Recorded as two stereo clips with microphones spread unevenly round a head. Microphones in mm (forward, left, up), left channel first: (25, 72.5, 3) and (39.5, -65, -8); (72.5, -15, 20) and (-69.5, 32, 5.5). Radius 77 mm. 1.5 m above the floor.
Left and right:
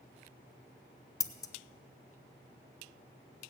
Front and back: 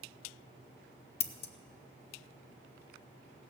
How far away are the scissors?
About 0.7 m.